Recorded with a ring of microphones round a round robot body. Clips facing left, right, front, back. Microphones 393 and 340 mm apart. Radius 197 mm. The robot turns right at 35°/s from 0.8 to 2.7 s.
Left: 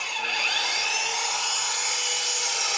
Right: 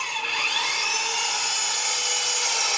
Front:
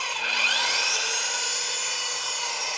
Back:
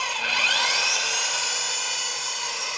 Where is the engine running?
170° right, 1.0 m; by 2.8 s 105° right, 1.0 m.